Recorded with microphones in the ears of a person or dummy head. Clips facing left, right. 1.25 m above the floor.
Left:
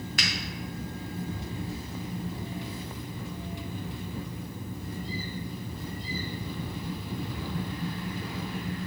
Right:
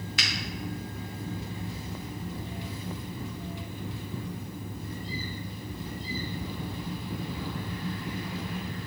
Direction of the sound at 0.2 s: 40° left (ahead or behind).